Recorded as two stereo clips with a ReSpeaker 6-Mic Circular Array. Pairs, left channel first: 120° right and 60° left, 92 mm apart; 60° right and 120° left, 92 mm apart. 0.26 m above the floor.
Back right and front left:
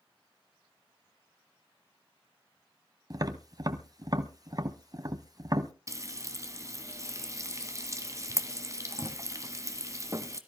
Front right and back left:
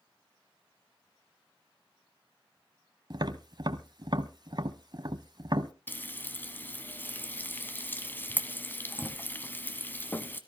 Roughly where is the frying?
Ahead.